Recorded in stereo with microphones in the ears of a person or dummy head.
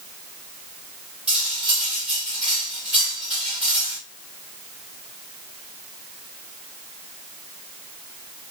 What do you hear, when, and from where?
1.3 s cutlery clinking: 5° right (ahead or behind), 1.6 m